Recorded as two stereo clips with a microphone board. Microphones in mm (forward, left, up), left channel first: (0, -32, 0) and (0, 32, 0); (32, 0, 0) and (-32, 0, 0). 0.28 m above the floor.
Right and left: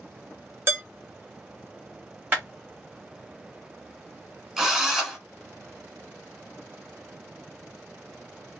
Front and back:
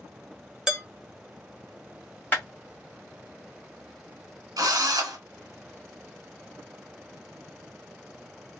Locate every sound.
0.7 s dishes clattering: 105° left, 0.8 m
2.3 s a clap: 45° left, 1.1 m
4.6 s a drill: 175° left, 1.0 m